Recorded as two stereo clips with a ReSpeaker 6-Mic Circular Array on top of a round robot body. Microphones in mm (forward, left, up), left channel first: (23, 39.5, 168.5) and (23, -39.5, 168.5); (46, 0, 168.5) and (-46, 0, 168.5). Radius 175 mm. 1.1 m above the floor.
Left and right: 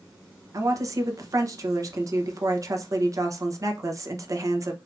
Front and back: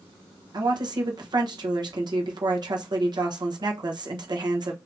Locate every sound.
0.5 s a woman speaking: 135° right, 1.0 m